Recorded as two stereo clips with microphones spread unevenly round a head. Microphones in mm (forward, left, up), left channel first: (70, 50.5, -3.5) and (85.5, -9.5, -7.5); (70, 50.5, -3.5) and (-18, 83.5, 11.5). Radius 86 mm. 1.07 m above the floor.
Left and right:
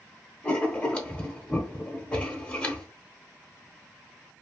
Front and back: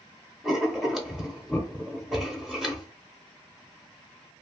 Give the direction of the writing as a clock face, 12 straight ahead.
9 o'clock.